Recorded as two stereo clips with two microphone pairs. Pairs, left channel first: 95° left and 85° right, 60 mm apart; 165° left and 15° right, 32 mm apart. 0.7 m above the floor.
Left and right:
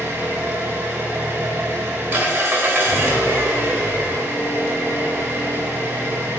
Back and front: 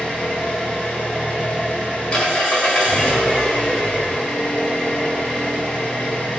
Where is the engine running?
145° right, 1.5 m.